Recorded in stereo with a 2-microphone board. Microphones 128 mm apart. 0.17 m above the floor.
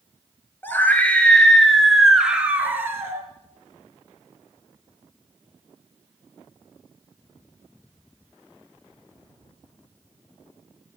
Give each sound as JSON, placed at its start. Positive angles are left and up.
{"t": 0.6, "sound": "a scream", "side_deg": 15, "distance_m": 3.5}